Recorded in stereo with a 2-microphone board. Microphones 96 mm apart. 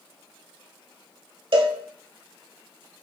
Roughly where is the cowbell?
Right.